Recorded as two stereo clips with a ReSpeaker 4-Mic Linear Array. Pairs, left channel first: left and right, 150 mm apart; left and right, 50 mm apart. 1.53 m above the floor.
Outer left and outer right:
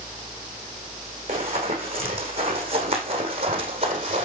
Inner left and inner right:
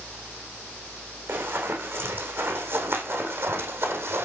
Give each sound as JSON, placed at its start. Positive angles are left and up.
{"t": 1.3, "sound": "running footsteps", "side_deg": -40, "distance_m": 6.0}